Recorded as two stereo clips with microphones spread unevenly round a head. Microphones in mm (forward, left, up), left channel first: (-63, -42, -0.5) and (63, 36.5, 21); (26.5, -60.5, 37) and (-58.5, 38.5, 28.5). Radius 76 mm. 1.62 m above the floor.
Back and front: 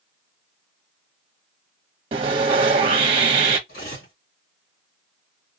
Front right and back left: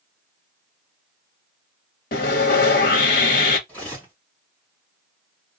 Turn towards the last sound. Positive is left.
turn(degrees=-125)